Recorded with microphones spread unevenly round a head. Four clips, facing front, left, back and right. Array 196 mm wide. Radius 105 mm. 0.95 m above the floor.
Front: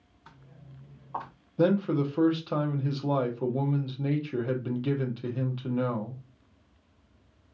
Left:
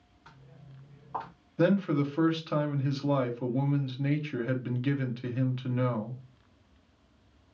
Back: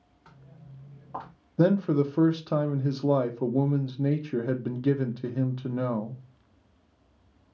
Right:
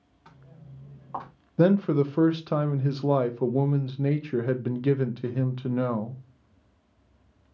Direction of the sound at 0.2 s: 125° right.